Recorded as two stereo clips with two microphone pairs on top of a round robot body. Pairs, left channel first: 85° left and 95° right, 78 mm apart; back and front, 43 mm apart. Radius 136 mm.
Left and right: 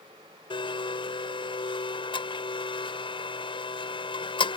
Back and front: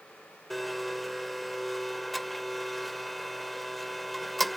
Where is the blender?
90° left.